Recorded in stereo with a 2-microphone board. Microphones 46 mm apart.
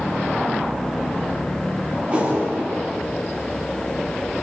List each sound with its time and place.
2.1 s a whoosh: 30° right (ahead or behind), 9 m